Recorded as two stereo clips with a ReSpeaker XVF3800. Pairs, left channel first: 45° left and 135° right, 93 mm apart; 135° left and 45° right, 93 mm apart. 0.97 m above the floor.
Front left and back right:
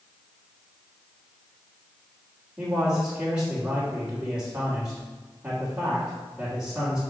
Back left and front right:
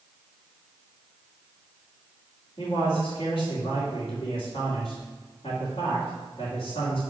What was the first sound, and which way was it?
A man speaking, 155° left.